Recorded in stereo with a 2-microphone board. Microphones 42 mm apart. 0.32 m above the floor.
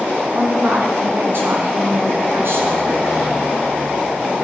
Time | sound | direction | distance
0.3 | a woman speaking | 55° right (ahead or behind) | 3 m